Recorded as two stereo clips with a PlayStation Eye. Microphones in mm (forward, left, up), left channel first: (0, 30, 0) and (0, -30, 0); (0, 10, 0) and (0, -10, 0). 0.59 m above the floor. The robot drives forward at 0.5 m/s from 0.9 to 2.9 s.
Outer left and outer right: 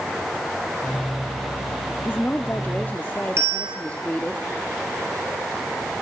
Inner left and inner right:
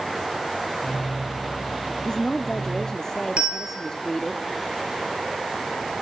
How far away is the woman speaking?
About 0.9 m.